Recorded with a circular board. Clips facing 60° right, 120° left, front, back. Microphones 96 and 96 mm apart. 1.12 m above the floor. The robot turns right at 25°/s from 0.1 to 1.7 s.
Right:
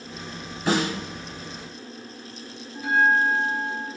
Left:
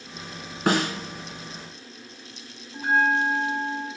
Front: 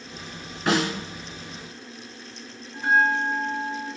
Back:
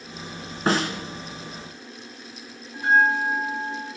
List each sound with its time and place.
0.7 s a snare drum: 130° left, 2 m; by 0.9 s 135° left, 2 m
2.7 s a bell: 95° left, 2.5 m